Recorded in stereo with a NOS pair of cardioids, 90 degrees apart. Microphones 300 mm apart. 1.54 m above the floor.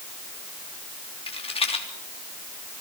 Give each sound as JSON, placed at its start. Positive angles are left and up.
{"t": 1.3, "sound": "a rattle", "azimuth_deg": 20, "distance_m": 3.5}